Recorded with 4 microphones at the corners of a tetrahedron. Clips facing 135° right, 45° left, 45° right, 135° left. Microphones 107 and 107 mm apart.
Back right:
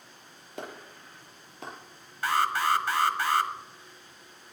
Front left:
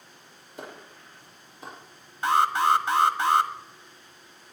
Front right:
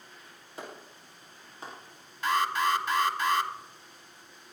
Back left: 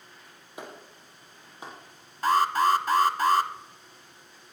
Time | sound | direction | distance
0.6 | a clap | 150° right | 5.5 m
2.2 | an alarm | 105° left | 1.2 m